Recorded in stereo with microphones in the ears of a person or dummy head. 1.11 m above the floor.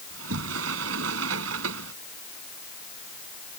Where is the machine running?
I don't hear a machine running.